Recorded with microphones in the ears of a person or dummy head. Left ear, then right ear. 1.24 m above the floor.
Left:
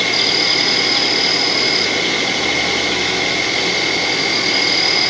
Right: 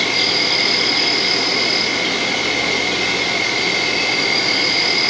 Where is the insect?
10° left (ahead or behind), 5.5 m.